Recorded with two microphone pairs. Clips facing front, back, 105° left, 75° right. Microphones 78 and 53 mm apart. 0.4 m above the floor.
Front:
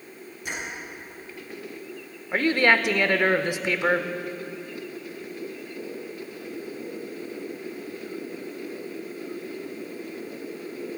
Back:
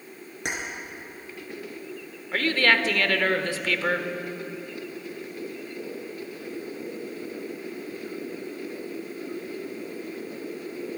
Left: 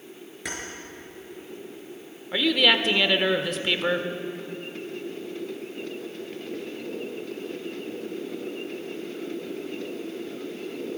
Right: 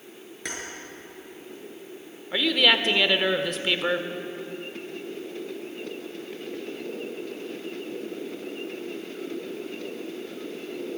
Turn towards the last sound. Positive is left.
turn(degrees=25)